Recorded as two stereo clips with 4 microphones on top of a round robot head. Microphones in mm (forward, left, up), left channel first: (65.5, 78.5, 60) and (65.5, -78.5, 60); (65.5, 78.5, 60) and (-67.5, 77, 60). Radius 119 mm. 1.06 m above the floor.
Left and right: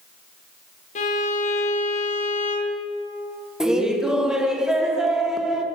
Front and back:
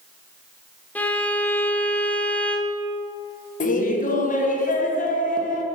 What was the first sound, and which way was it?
A violin, 75° left.